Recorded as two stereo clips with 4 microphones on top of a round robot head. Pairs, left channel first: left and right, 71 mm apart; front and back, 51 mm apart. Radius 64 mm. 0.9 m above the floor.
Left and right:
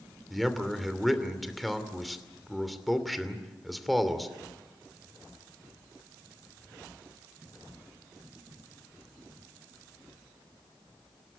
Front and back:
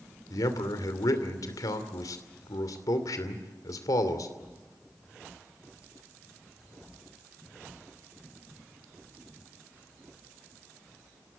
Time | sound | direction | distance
0.3 | a man speaking | straight ahead | 2.5 m